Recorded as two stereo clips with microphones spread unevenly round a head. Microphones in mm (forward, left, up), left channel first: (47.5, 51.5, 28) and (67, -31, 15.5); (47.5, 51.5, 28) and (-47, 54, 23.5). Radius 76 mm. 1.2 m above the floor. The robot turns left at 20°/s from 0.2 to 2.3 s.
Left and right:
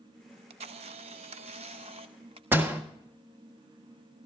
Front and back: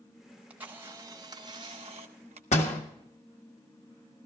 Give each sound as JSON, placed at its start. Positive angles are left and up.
{"t": 0.3, "sound": "a camera shutter", "azimuth_deg": -95, "distance_m": 0.6}
{"t": 2.5, "sound": "a door slam", "azimuth_deg": -10, "distance_m": 1.7}